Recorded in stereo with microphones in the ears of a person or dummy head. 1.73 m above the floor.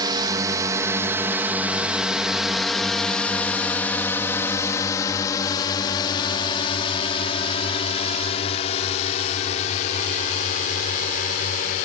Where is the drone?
25° right (ahead or behind); by 11.9 s 45° left (ahead or behind).